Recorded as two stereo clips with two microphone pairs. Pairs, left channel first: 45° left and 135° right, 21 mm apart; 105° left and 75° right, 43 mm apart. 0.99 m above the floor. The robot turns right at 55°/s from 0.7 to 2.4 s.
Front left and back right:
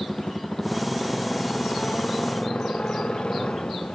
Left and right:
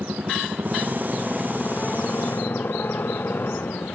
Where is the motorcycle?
20° right; by 4.0 s 70° left.